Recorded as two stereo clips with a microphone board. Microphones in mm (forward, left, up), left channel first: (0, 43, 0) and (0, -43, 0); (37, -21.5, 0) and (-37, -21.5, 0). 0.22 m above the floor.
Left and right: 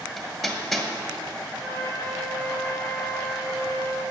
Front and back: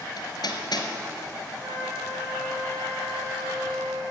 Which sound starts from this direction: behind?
A flute, at 1.6 s.